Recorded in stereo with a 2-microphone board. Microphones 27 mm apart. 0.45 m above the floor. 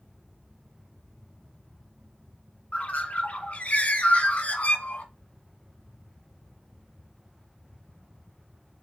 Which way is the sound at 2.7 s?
55° left (ahead or behind).